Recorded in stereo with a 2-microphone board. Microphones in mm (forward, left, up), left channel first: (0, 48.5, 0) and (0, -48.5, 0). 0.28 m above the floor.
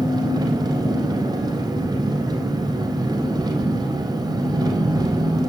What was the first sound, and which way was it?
An engine running, 45° right (ahead or behind).